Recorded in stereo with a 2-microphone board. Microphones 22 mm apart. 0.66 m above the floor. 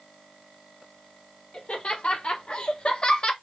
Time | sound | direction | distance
1.5 | laughter | 55° left (ahead or behind) | 2.5 m